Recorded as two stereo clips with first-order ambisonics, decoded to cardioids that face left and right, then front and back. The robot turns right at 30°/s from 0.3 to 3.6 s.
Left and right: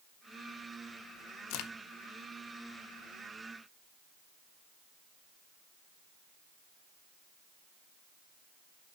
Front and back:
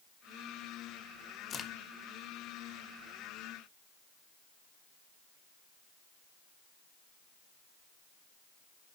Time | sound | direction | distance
1.5 | a crack | 70° left | 0.6 m